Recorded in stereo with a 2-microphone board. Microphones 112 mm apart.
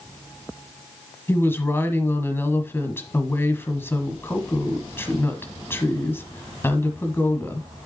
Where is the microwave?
No microwave in this recording.